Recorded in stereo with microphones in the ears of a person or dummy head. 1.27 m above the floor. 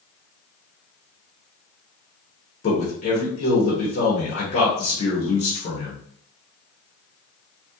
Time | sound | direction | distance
2.6 | a man speaking | 50° left (ahead or behind) | 1.2 m